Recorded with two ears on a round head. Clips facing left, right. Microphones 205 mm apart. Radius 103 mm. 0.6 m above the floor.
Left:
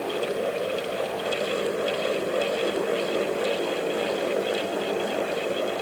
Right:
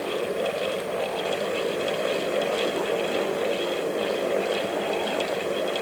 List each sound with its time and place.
Only background noise.